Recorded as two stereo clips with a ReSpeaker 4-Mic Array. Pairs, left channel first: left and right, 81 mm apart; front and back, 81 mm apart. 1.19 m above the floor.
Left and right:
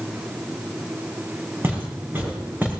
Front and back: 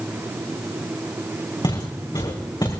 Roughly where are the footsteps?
Ahead right.